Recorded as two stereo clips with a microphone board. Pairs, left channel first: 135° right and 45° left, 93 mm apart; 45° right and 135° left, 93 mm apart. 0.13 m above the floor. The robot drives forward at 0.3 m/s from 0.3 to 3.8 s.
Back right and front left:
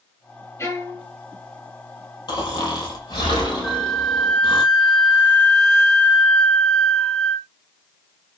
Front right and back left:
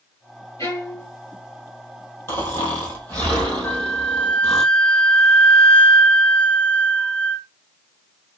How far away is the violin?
About 2.5 m.